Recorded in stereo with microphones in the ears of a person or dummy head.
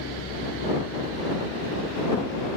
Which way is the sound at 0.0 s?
65° left (ahead or behind).